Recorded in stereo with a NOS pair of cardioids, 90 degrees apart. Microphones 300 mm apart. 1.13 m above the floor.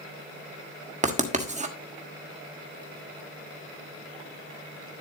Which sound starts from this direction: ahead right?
Writing, at 1.0 s.